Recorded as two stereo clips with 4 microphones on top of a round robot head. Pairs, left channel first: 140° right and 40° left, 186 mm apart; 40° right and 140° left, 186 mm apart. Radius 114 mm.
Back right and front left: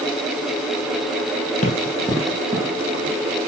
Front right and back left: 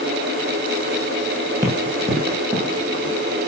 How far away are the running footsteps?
About 1.5 m.